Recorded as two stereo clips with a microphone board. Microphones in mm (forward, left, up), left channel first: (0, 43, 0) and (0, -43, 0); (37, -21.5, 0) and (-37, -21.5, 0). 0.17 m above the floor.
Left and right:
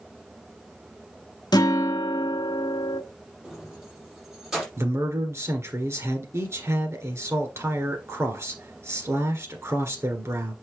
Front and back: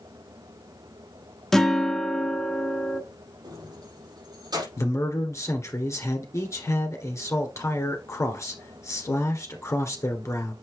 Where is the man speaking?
40° right, 2.5 m.